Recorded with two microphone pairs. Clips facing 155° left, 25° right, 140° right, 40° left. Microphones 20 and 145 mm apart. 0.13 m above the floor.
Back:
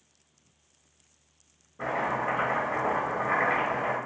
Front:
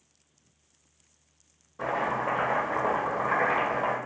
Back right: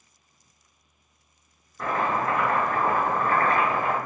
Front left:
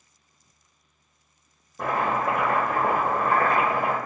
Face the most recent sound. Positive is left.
turn(degrees=15)